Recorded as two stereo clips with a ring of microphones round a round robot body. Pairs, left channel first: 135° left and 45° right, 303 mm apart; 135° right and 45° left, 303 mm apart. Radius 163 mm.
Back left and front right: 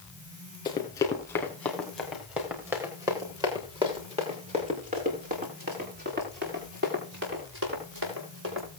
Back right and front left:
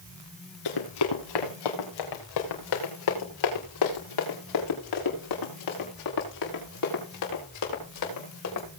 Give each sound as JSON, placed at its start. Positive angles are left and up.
{"t": 0.7, "sound": "running footsteps", "azimuth_deg": -150, "distance_m": 4.5}